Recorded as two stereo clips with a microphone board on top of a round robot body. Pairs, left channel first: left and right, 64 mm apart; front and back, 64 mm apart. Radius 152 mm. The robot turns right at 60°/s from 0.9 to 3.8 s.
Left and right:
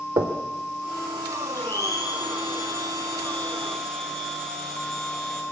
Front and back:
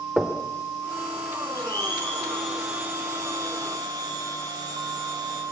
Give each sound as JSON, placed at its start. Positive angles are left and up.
{"t": 0.2, "sound": "knocking", "azimuth_deg": -95, "distance_m": 2.5}
{"t": 1.5, "sound": "a blender", "azimuth_deg": 35, "distance_m": 6.5}